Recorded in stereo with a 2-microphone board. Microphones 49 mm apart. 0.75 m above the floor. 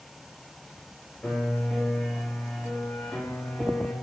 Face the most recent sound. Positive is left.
turn(degrees=10)  # may be behind; listen again after turning